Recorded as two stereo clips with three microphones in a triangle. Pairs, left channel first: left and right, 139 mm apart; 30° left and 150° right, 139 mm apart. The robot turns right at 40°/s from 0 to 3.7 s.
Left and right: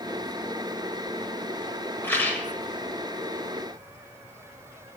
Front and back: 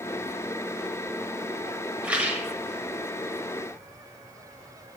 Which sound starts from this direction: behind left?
A rattle, at 2.0 s.